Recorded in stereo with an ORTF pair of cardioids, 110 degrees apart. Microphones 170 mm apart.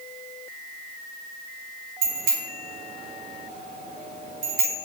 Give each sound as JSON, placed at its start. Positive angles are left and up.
{"t": 2.0, "sound": "a bicycle bell", "azimuth_deg": -65, "distance_m": 6.0}